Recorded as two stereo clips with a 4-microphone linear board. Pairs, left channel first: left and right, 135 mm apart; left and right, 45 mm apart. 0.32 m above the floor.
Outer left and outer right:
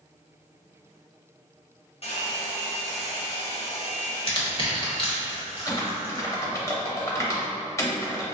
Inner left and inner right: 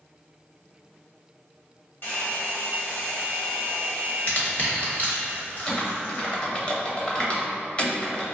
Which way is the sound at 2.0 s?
45° left (ahead or behind).